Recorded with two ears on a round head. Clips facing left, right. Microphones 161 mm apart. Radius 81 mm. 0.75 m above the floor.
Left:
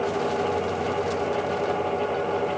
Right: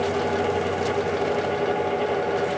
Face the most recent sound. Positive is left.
No sound to turn to.